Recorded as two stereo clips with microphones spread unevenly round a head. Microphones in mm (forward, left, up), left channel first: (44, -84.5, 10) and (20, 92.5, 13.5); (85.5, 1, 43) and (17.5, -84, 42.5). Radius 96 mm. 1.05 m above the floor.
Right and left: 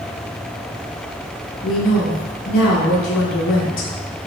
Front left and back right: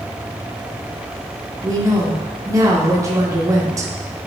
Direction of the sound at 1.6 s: 65° right.